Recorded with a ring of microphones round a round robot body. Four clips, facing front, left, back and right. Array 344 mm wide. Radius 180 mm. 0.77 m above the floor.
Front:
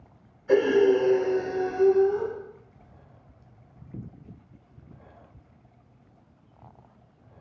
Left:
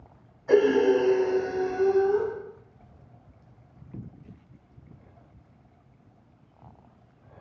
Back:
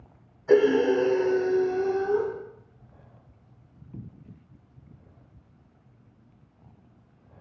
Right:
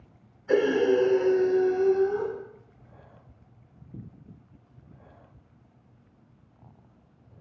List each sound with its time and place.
0.5 s breathing: 145° left, 0.9 m